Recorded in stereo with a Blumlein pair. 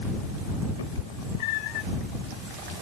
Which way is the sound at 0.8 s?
60° left.